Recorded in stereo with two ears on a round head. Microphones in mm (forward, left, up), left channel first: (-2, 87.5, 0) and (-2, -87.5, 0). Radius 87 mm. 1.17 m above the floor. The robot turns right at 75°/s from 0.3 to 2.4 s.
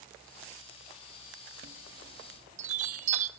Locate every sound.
1.6 s a chime: 45° right (ahead or behind), 0.9 m; by 3.3 s 40° right (ahead or behind), 0.9 m